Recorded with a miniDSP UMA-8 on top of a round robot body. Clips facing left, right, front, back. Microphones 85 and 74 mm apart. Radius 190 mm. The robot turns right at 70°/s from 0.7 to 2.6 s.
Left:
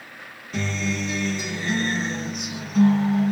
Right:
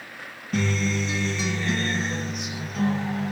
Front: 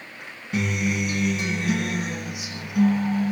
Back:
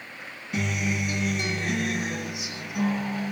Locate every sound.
0.5 s a guitar: 50° right, 1.8 m; by 3.3 s 85° left, 1.8 m